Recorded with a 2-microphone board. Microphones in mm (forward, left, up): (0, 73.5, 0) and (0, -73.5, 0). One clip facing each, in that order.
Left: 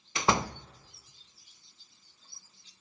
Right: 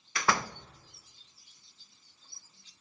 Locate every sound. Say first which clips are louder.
0.1 s a door slam: left 2 dB; 20° left (ahead or behind), 0.5 m